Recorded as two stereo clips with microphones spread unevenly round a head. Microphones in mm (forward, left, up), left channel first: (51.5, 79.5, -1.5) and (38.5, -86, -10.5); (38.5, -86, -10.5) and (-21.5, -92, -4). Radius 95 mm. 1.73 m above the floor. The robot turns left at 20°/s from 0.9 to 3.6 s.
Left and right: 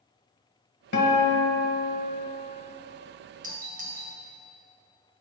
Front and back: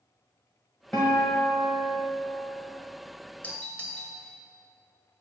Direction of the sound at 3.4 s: 55° right.